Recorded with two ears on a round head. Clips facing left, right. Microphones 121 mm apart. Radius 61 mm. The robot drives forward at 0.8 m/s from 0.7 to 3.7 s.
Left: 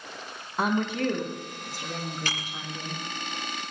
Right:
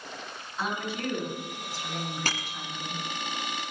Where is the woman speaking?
45° left (ahead or behind), 4.5 m; by 3.0 s 35° left (ahead or behind), 6 m.